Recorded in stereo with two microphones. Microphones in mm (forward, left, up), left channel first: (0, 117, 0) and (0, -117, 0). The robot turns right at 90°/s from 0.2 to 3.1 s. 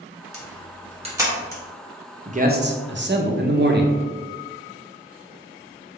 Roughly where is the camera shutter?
Right.